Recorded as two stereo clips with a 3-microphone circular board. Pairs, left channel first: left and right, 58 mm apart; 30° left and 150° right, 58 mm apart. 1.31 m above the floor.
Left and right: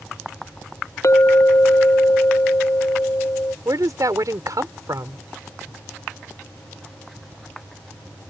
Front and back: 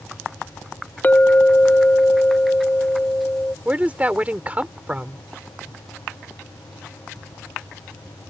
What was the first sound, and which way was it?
A clink, 80° left.